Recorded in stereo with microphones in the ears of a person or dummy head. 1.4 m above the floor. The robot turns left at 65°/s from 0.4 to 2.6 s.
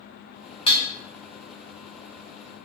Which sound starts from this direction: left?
Dishes clattering, at 0.7 s.